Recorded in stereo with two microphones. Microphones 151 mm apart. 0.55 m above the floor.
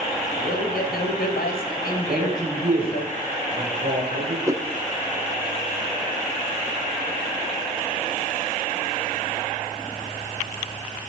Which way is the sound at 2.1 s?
65° right (ahead or behind).